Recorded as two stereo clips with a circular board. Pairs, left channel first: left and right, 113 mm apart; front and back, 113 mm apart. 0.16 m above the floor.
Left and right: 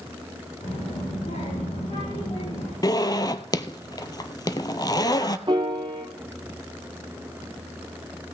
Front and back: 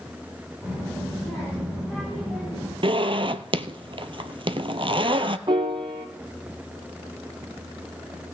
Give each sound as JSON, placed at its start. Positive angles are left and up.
{"t": 0.6, "sound": "a child speaking", "azimuth_deg": 85, "distance_m": 8.0}
{"t": 2.8, "sound": "a zipper", "azimuth_deg": 145, "distance_m": 0.7}
{"t": 5.5, "sound": "a piano", "azimuth_deg": -135, "distance_m": 1.3}